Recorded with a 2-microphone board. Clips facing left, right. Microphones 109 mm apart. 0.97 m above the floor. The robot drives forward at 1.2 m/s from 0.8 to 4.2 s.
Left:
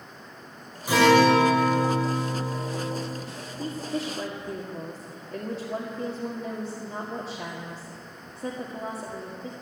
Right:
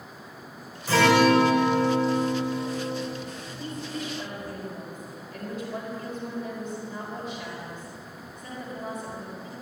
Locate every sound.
0.9 s a guitar: 15° left (ahead or behind), 5 m; by 3.1 s 30° left (ahead or behind), 2.5 m
3.6 s a woman speaking: 50° left (ahead or behind), 2.5 m; by 9.5 s 70° left (ahead or behind), 2.0 m